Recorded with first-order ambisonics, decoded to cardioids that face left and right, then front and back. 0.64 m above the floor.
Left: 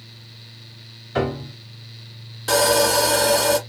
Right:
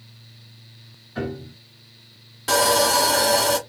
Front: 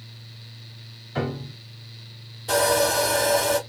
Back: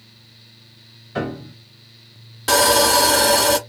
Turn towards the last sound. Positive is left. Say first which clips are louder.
# left 1 dB, back 6 dB
turn(degrees=180)